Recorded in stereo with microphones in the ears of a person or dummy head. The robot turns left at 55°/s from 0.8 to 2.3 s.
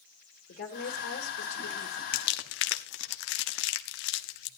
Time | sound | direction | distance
0.5 | a woman speaking | 125° left | 2 m
2.1 | crumpling | 55° left (ahead or behind) | 0.9 m